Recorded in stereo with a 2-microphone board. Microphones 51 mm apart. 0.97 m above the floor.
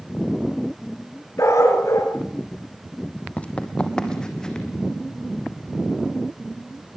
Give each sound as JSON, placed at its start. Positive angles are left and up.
{"t": 1.4, "sound": "a dog barking", "side_deg": 75, "distance_m": 4.0}
{"t": 3.4, "sound": "running footsteps", "side_deg": 25, "distance_m": 1.8}